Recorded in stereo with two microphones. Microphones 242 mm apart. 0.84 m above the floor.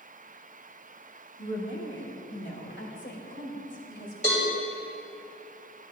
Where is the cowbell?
30° left (ahead or behind), 3 m.